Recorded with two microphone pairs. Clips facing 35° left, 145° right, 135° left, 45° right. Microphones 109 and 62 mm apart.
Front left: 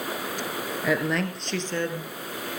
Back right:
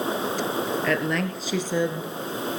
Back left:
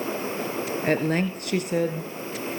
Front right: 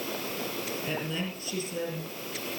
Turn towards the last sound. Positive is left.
turn(degrees=145)